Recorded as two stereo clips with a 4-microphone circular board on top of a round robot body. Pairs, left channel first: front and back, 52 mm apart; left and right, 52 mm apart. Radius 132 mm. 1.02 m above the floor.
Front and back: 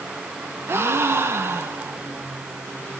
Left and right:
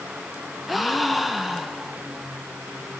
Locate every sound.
0.7 s a gasp: straight behind, 1.2 m